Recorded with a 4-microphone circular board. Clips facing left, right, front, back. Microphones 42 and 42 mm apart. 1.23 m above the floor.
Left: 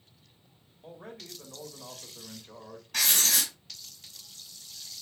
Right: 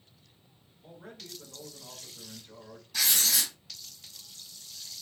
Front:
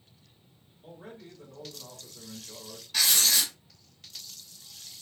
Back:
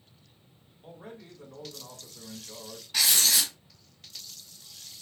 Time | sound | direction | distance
0.8 | a man speaking | 110° left | 2.5 m
2.9 | writing | 100° left | 1.7 m